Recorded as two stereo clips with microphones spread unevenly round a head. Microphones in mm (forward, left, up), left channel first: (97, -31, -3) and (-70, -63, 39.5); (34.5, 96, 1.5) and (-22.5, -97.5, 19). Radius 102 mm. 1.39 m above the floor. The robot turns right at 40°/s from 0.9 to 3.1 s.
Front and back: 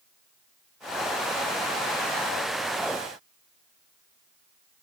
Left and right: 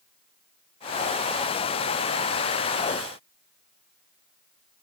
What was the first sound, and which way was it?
Only background noise.